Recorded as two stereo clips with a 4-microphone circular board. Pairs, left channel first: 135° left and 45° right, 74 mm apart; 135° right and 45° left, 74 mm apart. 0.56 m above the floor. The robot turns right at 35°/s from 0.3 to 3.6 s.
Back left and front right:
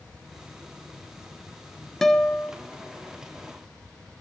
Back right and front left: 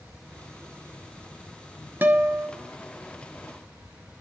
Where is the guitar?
60° left, 1.3 m; by 2.5 s 75° left, 1.3 m.